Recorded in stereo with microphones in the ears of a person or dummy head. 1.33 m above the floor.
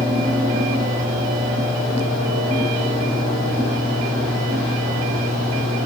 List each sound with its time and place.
0.0 s a fan: 35° right (ahead or behind), 0.9 m